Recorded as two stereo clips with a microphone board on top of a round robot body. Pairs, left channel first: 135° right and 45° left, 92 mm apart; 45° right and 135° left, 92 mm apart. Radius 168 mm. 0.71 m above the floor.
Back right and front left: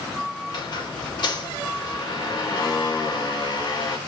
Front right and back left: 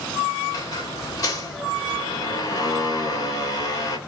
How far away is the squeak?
About 1.7 m.